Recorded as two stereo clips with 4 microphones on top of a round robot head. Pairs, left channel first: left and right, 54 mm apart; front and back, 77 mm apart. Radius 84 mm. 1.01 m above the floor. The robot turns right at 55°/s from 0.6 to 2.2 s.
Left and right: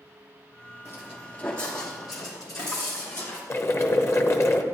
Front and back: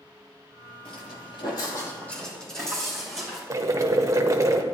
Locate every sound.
0.8 s footsteps: 35° right, 1.3 m; by 3.4 s 85° left, 4.5 m
3.5 s boiling: 130° left, 1.1 m